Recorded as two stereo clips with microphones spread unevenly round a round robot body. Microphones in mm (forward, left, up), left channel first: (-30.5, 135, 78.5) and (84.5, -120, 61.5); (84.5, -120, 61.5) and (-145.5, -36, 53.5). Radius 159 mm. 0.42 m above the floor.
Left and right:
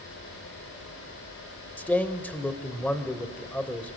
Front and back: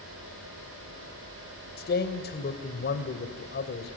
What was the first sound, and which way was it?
A man speaking, 30° left.